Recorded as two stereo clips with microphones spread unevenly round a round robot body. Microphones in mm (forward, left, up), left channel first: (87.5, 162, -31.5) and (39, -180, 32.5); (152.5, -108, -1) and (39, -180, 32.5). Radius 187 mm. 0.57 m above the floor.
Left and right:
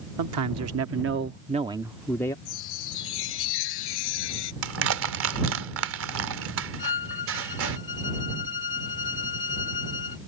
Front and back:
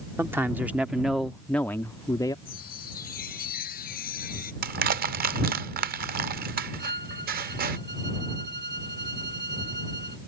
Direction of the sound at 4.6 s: 155° right.